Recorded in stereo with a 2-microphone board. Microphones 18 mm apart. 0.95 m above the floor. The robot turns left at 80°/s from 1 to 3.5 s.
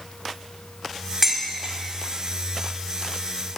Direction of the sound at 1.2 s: 20° right (ahead or behind).